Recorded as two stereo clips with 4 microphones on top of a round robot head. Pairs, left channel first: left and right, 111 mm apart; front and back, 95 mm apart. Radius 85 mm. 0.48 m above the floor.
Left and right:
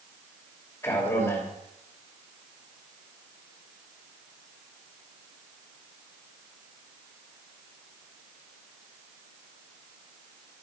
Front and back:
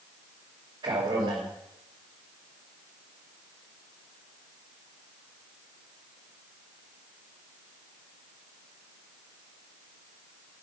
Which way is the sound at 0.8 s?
150° left.